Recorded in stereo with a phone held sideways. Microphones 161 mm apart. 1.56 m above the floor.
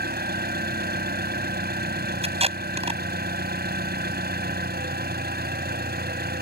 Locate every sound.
0.0 s an engine running: 85° right
2.2 s tape being pulled: 40° right (ahead or behind)